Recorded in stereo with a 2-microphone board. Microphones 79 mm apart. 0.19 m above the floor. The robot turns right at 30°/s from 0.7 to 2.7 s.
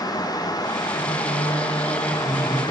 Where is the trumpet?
I don't hear a trumpet.